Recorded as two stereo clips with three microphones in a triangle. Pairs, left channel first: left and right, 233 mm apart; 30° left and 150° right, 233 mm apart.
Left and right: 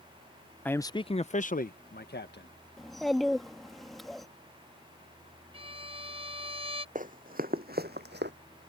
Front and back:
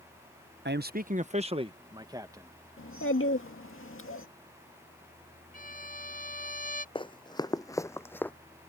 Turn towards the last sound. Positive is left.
turn(degrees=-55)